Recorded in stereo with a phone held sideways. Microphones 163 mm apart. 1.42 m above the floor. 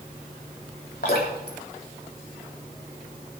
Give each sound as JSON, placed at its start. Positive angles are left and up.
{"t": 1.0, "sound": "dripping", "side_deg": 80, "distance_m": 3.5}